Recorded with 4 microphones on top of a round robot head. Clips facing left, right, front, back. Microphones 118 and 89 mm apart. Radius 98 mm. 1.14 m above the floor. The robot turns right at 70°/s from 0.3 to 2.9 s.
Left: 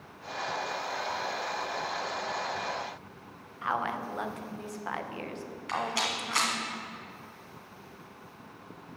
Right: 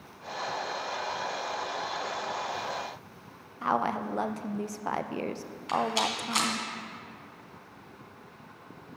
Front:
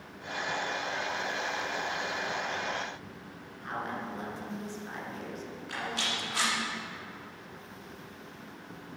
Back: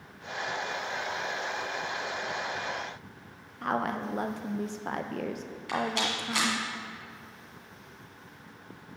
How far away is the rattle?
About 2 m.